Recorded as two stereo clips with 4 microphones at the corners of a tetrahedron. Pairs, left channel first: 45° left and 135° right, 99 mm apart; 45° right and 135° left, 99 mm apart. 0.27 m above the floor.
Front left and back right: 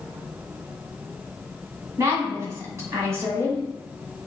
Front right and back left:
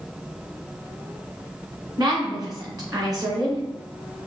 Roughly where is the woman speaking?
Behind.